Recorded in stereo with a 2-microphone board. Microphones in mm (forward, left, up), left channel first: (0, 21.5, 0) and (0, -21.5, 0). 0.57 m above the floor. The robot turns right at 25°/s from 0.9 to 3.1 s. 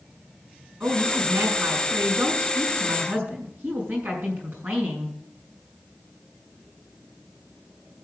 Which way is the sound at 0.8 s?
110° right.